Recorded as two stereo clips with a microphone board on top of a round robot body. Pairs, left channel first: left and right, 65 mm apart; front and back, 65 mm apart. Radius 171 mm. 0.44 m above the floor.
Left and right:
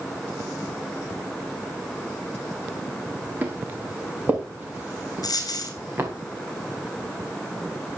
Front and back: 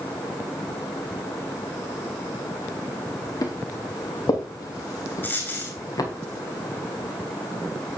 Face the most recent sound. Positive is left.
turn(degrees=60)